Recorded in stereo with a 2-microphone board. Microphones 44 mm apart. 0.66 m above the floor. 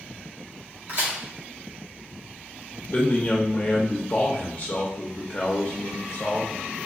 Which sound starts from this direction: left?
A man speaking, at 2.9 s.